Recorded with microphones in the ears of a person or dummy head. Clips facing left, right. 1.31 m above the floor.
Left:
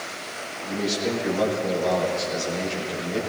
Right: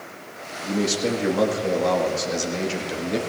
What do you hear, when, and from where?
0.6 s a man speaking: 70° right (ahead or behind), 2 m